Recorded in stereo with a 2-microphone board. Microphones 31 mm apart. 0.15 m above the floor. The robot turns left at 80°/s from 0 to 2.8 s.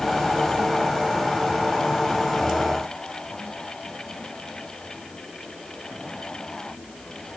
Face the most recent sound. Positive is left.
No sound to turn to.